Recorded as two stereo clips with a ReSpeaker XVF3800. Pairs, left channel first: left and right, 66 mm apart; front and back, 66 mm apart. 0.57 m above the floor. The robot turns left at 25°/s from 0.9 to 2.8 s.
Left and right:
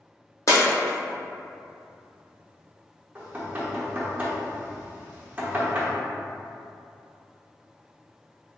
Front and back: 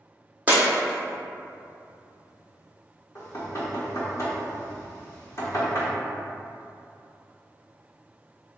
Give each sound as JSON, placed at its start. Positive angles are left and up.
{"t": 0.5, "sound": "breaking glass", "azimuth_deg": 120, "distance_m": 1.4}
{"t": 3.1, "sound": "knocking", "azimuth_deg": -30, "distance_m": 1.2}